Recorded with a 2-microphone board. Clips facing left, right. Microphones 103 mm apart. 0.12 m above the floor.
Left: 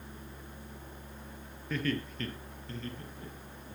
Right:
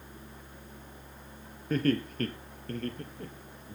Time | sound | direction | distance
1.7 | laughter | 40° right (ahead or behind) | 2.5 m